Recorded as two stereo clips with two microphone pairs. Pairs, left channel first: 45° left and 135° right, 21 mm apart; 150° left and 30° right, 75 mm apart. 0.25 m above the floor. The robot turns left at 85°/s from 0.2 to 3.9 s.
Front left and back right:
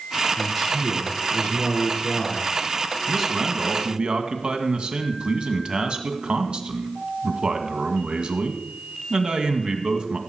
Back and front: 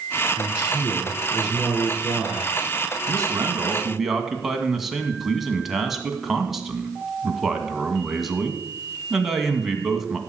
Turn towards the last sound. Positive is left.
turn(degrees=-120)